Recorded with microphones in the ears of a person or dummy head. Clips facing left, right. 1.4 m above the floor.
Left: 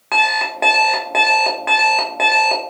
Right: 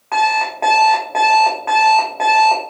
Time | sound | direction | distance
0.1 | an alarm clock | 20° left (ahead or behind) | 0.6 m